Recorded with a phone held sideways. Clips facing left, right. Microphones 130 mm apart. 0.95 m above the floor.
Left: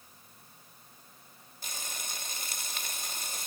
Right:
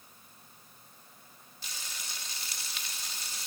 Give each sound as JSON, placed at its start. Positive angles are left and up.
{"t": 1.6, "sound": "frying", "side_deg": 50, "distance_m": 1.0}